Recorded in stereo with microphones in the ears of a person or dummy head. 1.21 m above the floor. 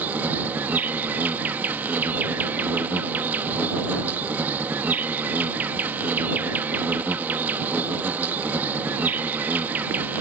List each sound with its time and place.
0.0 s an insect: 10° right (ahead or behind)